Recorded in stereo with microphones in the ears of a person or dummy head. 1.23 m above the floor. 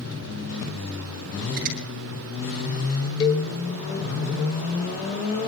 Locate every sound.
1.6 s a finger snap: 50° right (ahead or behind), 7 m
3.2 s a cowbell: 25° left (ahead or behind), 2.5 m